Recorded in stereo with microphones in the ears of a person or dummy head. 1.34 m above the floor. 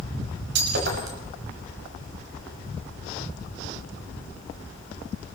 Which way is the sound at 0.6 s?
70° right (ahead or behind).